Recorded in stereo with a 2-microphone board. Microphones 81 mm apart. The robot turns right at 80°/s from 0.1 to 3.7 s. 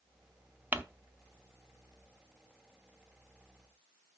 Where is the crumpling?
25° right (ahead or behind), 0.7 m; by 0.8 s 20° right (ahead or behind), 0.7 m.